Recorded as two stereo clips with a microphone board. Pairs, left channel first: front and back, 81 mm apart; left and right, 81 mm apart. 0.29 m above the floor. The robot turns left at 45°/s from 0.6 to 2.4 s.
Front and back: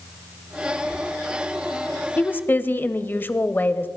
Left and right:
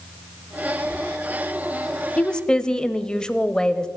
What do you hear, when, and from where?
0.8 s whispering: 115° right, 7 m; by 1.0 s 120° right, 7 m
2.2 s a woman speaking: 30° left, 0.9 m; by 3.9 s 20° left, 0.9 m